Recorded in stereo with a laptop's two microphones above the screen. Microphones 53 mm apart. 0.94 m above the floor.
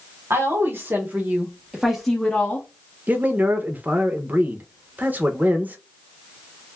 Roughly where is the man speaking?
Right.